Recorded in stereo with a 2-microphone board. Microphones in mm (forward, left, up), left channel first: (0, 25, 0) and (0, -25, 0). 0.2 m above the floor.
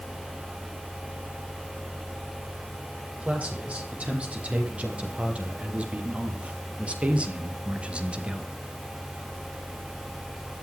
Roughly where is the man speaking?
Right.